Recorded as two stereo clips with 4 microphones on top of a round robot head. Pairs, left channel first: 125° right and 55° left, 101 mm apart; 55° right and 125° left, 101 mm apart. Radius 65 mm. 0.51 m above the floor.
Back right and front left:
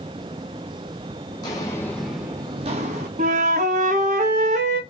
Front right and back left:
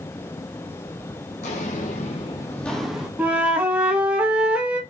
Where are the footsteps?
80° right, 1.2 m; by 3.1 s 45° left, 1.0 m.